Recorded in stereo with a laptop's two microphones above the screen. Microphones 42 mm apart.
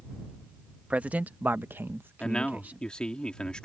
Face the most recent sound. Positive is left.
turn(degrees=20)  # may be behind; listen again after turning